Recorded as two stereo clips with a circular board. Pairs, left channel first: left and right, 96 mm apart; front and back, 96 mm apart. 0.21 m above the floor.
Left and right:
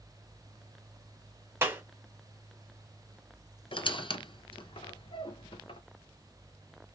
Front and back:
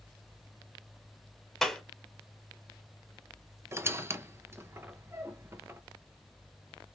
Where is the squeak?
115° left, 0.6 m.